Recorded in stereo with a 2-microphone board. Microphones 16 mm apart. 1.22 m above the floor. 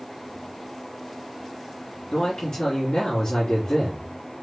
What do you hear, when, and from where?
2.1 s a man speaking: 60° left (ahead or behind), 3 m